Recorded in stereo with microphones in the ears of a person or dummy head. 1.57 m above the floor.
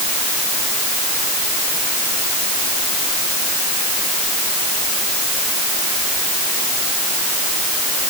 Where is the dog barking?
No dog barking in this recording.